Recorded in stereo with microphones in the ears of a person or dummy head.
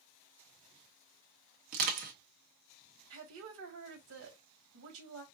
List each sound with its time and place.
1.7 s crushing: 45° right (ahead or behind), 1.2 m
3.1 s a woman speaking: 70° right (ahead or behind), 1.8 m